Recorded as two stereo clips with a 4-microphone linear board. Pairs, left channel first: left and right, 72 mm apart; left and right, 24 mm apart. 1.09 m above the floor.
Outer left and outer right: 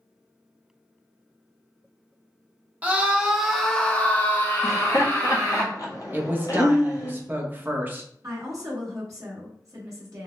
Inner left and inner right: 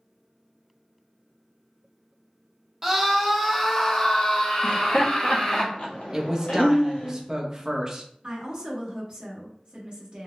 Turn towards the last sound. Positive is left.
turn(degrees=-45)  # may be behind; listen again after turning